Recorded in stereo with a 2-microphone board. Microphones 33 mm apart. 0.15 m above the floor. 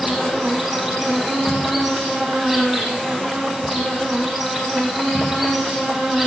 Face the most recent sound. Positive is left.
turn(degrees=0)  # may be behind; listen again after turning